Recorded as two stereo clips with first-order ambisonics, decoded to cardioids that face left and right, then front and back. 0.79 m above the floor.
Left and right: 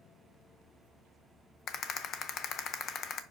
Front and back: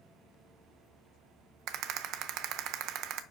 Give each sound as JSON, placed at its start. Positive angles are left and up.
{"t": 1.7, "sound": "a rattle", "azimuth_deg": 145, "distance_m": 0.6}